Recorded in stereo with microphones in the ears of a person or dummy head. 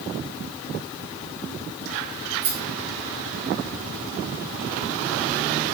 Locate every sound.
2.4 s a rattle: 55° right (ahead or behind), 1.8 m